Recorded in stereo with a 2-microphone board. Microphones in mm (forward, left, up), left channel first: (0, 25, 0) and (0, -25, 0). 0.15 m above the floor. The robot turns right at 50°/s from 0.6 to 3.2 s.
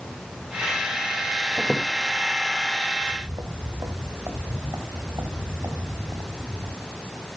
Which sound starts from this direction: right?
Footsteps, at 3.0 s.